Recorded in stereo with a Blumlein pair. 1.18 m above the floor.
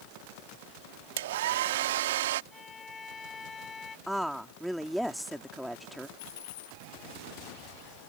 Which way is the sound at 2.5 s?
15° left.